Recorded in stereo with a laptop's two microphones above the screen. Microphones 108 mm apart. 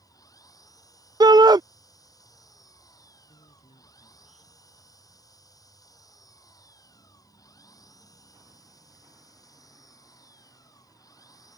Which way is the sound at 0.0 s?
35° left (ahead or behind).